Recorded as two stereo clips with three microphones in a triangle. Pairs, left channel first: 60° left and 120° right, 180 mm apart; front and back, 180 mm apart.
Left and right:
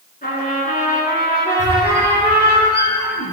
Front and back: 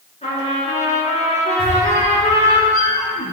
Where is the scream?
I don't hear a scream.